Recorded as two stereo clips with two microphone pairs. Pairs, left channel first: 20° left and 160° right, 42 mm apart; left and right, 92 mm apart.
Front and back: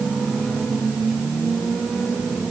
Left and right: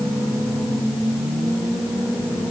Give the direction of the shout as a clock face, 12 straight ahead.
I don't hear a shout.